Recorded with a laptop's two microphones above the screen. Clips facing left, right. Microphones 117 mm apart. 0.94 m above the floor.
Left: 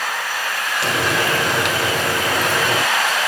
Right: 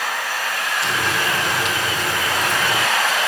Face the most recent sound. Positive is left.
turn(degrees=75)  # may be behind; listen again after turning